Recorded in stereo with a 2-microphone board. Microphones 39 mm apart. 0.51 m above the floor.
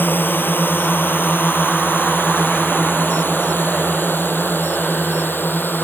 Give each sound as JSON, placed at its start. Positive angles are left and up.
{"t": 0.0, "sound": "a drone", "side_deg": 70}